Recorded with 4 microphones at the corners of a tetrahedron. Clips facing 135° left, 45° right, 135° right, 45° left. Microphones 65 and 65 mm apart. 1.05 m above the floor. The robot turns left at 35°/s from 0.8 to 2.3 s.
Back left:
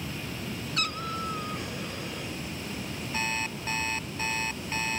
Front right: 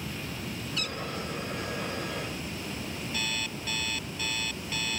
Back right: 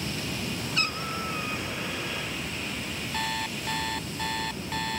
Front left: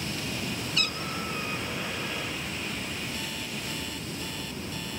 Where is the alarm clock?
165° right.